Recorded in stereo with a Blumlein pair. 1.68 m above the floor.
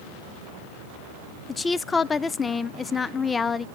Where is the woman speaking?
15° left, 0.5 m.